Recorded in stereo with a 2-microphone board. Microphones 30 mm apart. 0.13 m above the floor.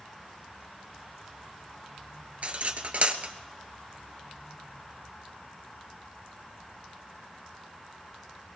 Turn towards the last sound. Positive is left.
turn(degrees=-50)  # may be behind; listen again after turning